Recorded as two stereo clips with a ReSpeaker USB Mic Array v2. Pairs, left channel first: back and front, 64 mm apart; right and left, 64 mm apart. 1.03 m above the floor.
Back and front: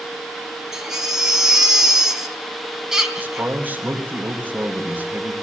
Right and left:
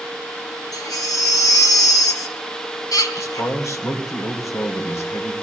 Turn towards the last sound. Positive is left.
turn(degrees=-60)